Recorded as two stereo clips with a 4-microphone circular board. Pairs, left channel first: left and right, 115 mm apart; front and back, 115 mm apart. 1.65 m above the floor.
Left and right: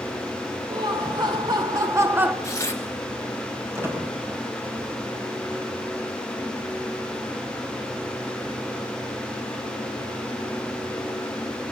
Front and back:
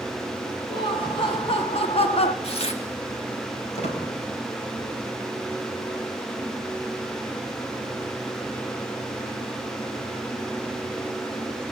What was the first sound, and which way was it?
Laughter, 45° right.